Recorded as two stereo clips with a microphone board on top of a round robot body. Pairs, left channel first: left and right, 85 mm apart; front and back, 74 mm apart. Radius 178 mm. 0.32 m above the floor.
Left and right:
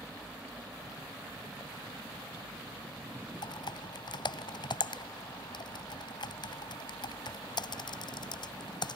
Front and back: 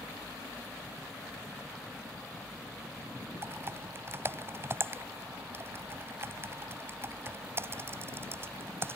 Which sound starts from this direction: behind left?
Typing on a keyboard, at 3.4 s.